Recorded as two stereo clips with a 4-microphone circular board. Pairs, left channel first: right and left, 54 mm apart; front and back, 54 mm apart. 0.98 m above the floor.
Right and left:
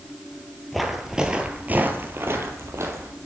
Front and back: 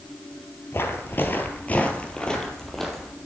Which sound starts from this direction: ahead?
Footsteps, at 0.7 s.